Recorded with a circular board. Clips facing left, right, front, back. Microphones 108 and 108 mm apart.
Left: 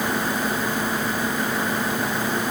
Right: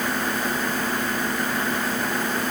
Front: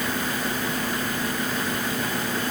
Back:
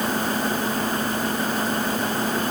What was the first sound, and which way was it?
Only background noise.